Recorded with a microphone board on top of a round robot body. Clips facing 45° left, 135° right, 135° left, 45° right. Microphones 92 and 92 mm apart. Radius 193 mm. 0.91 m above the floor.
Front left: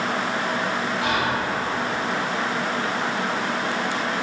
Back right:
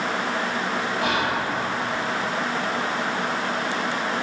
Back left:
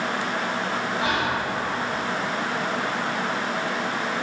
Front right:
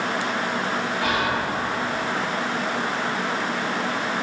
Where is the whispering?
160° right, 1.5 m.